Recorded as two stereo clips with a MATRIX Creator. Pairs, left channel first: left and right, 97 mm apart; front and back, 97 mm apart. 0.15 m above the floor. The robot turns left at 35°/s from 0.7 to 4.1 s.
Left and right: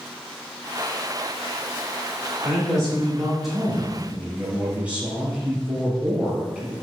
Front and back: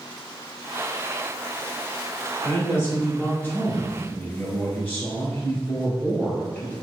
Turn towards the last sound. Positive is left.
turn(degrees=-35)